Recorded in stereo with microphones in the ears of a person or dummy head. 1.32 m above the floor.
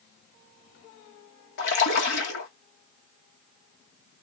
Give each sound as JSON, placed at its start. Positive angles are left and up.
{"t": 1.6, "sound": "a splash", "side_deg": 60, "distance_m": 1.4}